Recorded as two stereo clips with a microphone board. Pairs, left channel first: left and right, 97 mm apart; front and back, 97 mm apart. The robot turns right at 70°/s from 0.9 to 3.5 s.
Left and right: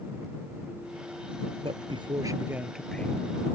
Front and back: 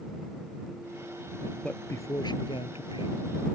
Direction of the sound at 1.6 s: 80° right.